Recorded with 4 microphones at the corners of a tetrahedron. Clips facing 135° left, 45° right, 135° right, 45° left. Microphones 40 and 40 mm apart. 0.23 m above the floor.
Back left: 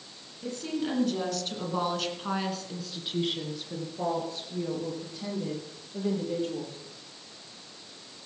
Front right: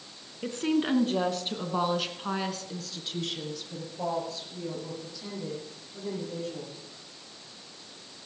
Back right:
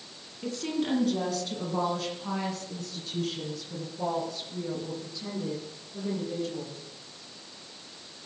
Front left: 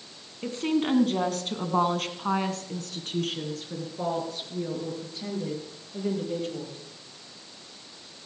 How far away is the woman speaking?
About 2 m.